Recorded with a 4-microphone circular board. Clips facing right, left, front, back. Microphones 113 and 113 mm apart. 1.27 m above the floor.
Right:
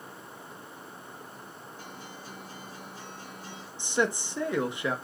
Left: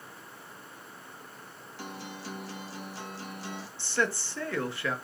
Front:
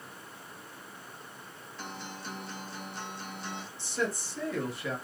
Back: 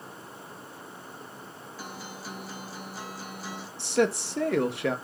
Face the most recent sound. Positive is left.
turn(degrees=-160)